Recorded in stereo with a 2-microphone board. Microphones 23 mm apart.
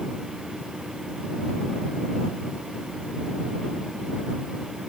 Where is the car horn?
I don't hear a car horn.